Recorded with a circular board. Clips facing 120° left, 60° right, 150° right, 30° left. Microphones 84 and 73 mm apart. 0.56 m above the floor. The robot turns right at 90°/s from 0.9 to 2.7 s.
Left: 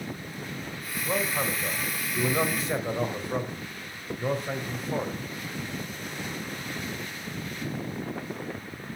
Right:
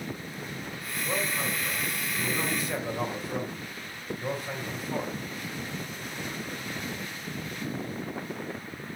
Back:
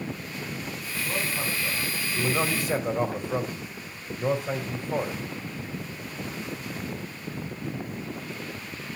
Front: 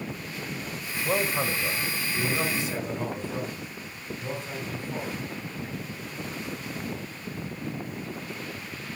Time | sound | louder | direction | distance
1.1 | a man speaking | left 3 dB, front 5 dB | 35° left | 3 m